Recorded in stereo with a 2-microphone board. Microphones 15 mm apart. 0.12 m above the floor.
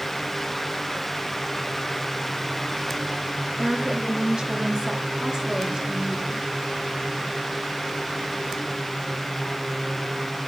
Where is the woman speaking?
70° right (ahead or behind), 5 m; by 6.4 s 80° right, 8.5 m.